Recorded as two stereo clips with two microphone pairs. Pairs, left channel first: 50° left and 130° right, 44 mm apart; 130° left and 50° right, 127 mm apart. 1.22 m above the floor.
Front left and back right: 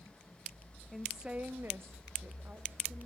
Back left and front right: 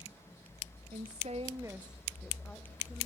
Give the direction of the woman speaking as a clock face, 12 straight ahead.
1 o'clock.